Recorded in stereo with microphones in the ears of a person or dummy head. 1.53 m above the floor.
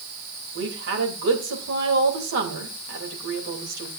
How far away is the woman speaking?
About 3 m.